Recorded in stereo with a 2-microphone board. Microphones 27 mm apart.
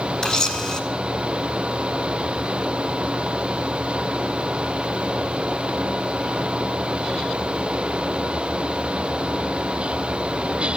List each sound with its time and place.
0.2 s a camera shutter: 35° left (ahead or behind), 2 m